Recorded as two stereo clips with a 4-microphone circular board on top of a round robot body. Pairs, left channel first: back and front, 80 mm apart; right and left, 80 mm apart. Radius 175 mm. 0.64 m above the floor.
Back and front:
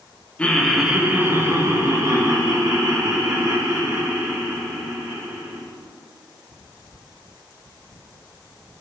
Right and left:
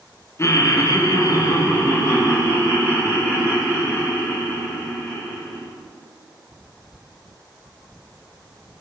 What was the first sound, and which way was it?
Laughter, 115° right.